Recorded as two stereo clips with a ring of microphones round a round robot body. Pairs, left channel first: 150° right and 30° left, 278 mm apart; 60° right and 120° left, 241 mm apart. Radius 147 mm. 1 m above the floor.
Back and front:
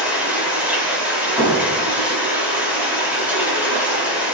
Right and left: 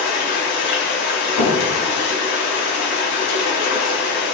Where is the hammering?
50° right, 5.5 m.